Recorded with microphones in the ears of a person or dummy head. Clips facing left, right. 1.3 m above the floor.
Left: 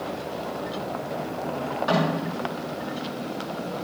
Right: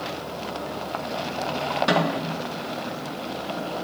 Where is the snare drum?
40° right (ahead or behind), 4.5 m.